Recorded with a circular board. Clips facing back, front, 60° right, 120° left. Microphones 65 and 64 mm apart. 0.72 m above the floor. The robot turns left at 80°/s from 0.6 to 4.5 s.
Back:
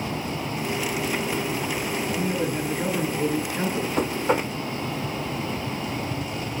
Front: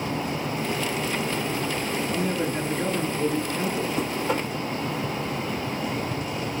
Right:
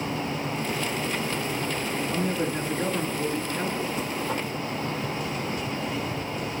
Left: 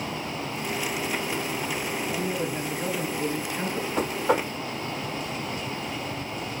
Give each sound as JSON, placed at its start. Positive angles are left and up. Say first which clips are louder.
{"t": 2.1, "sound": "a man speaking", "louder": "back 1 dB, right 2 dB", "azimuth_deg": -20, "distance_m": 8.0}
{"t": 4.0, "sound": "knocking", "louder": "back 3 dB, left 4 dB", "azimuth_deg": 150, "distance_m": 1.2}